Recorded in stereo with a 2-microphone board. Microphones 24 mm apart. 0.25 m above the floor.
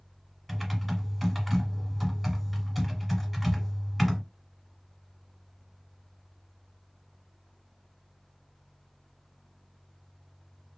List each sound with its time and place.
0.5 s typing on a keyboard: centre (ahead or behind), 0.8 m